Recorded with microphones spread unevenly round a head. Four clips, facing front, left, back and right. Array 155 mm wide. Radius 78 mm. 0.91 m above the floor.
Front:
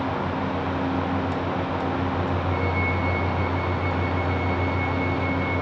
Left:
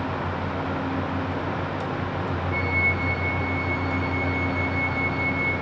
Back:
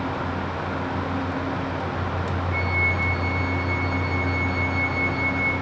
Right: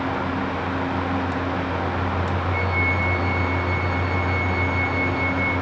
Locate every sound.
2.5 s a flute: 115° left, 4 m